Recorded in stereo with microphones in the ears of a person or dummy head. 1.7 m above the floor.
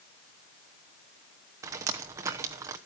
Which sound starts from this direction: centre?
Dripping, at 1.6 s.